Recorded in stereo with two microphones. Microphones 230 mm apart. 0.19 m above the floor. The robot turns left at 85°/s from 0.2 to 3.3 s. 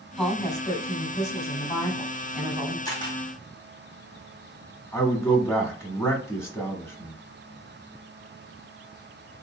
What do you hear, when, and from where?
0.2 s a woman speaking: 5° left (ahead or behind), 1.1 m; by 2.8 s 20° right (ahead or behind), 1.1 m
2.9 s a camera shutter: 15° left (ahead or behind), 1.7 m; by 3.2 s 20° left (ahead or behind), 1.7 m
4.9 s a man speaking: 10° left (ahead or behind), 1.1 m